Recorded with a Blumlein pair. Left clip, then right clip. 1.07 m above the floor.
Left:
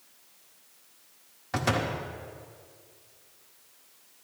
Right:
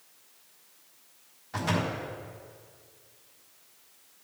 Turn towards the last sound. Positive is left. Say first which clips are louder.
# left 2 dB
turn(degrees=65)